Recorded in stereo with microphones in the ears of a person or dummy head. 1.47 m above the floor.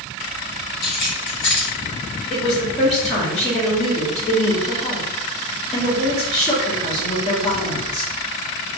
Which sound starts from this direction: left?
Keys jangling, at 0.8 s.